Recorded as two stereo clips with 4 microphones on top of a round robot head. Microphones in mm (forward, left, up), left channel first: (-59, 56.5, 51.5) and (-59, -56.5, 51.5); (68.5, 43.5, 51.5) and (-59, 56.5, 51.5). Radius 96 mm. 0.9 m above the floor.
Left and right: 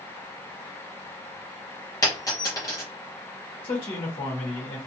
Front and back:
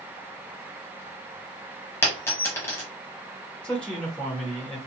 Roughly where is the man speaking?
Left.